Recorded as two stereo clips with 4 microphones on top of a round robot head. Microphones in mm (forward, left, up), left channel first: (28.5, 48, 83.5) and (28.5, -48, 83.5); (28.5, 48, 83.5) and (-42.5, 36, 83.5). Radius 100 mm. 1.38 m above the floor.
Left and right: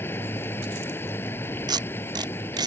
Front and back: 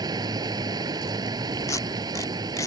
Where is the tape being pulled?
45° right.